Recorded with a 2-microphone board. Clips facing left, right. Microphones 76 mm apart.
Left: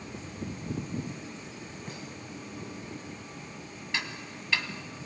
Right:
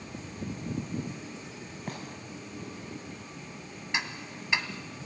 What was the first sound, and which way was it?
A gunshot, 55° right (ahead or behind).